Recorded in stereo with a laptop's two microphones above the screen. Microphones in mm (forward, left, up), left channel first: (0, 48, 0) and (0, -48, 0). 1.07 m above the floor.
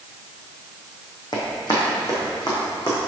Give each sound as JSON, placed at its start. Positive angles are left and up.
{"t": 1.3, "sound": "running footsteps", "side_deg": 45, "distance_m": 2.5}